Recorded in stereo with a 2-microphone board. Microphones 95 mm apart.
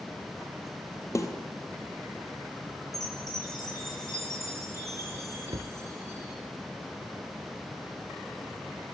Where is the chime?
30° right (ahead or behind), 10 m.